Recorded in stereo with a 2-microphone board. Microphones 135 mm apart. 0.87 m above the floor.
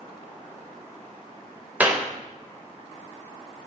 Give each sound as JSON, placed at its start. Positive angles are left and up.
{"t": 1.8, "sound": "a clap", "side_deg": -10, "distance_m": 2.0}